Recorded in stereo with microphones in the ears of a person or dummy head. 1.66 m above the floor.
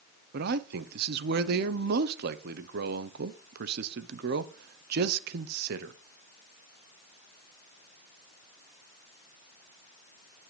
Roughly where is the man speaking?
Right.